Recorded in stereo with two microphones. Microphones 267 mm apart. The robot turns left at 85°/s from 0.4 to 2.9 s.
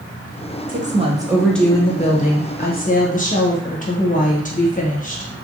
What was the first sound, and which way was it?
A woman speaking, 110° right.